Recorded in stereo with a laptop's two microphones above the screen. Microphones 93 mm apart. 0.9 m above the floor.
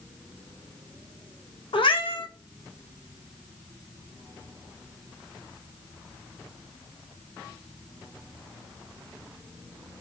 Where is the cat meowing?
70° left (ahead or behind), 0.8 m.